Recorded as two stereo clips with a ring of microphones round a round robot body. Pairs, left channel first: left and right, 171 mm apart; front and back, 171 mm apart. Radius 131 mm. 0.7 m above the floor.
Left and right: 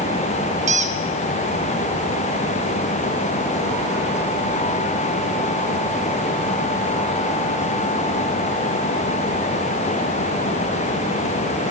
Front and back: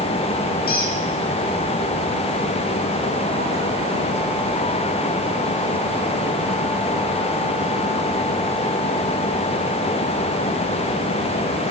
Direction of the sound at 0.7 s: 40° right.